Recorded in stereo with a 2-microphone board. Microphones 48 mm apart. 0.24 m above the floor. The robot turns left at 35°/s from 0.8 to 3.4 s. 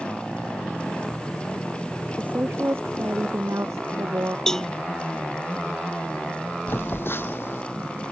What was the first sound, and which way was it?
A woman speaking, 35° right.